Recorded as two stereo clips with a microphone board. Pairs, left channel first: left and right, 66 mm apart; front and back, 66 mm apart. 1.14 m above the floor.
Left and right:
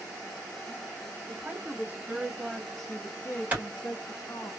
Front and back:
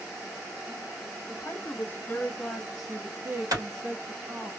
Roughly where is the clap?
Behind right.